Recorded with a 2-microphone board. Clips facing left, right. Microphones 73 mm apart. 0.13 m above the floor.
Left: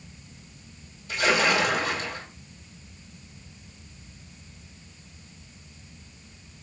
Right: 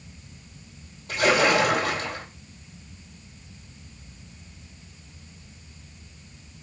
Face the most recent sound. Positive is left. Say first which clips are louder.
# right 3 dB
turn(degrees=-50)  # may be behind; listen again after turning